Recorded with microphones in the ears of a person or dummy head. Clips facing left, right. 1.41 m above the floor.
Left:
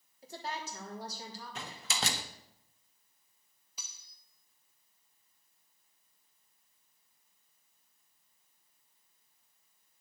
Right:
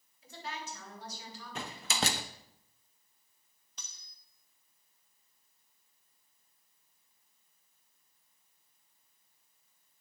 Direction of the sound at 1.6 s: 50° right (ahead or behind).